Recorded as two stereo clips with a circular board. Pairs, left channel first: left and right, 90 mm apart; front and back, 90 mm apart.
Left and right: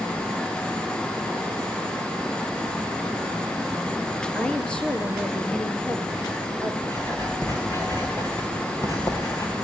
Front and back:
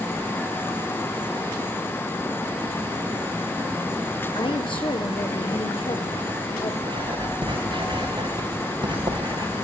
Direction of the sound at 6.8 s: 150° left.